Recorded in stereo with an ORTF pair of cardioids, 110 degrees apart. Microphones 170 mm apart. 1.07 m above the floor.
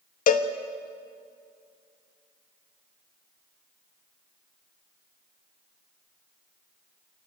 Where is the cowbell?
55° left, 1.4 m.